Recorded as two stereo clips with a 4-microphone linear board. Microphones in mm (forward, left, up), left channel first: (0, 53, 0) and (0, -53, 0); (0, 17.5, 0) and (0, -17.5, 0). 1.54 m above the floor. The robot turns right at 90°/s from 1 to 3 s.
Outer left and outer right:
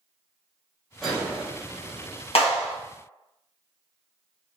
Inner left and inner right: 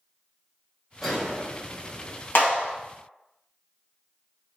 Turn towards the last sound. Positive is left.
turn(degrees=130)